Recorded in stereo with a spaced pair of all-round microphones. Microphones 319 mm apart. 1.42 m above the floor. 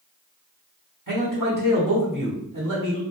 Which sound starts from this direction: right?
A man speaking, at 1.1 s.